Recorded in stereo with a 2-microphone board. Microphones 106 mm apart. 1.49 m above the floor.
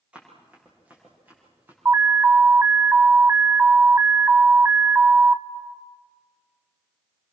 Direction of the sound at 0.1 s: 10° right (ahead or behind).